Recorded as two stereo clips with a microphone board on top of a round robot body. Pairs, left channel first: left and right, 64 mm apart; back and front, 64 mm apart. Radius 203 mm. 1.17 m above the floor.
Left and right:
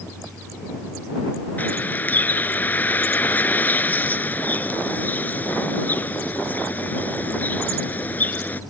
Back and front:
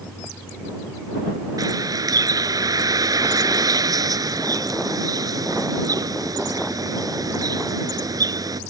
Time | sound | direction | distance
1.6 | a bird | 25° left | ?